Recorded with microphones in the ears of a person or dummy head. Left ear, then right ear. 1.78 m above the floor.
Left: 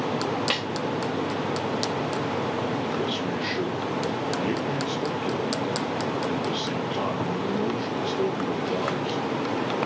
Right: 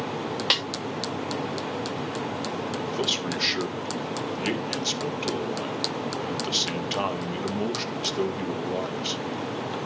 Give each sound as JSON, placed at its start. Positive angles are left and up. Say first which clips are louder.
{"t": 0.5, "sound": "a snare drum", "louder": "right 7 dB", "side_deg": -25, "distance_m": 1.6}
{"t": 2.9, "sound": "a man speaking", "louder": "even", "side_deg": -70, "distance_m": 2.5}